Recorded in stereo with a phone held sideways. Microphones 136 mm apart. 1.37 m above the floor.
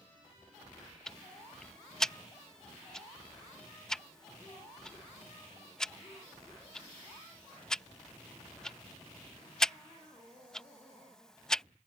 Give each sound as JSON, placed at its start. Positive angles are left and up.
{"t": 1.1, "sound": "ticking", "side_deg": 5}